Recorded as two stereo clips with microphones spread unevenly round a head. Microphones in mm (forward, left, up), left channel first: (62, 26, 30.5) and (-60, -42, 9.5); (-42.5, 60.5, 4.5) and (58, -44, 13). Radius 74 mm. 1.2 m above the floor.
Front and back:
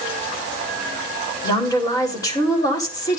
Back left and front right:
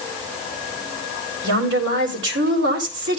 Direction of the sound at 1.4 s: 40° right.